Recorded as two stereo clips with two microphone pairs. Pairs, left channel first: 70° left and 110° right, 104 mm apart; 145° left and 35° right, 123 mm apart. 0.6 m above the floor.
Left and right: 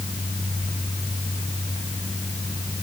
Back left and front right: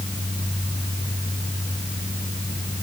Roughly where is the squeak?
No squeak in this recording.